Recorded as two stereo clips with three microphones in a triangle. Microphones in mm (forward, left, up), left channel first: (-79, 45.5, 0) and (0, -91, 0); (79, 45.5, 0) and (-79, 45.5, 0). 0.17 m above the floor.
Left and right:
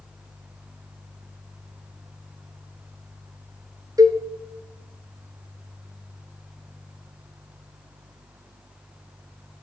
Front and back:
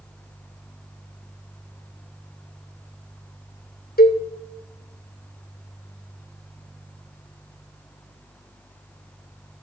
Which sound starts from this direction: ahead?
A cowbell, at 4.0 s.